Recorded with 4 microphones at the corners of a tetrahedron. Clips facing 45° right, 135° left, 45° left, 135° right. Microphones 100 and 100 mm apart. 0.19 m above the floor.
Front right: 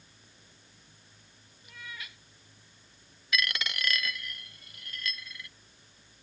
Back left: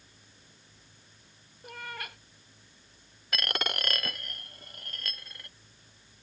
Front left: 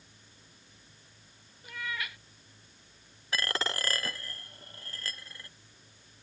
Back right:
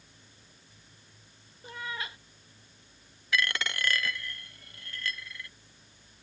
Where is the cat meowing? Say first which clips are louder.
Back left 6 dB, even; 165° left.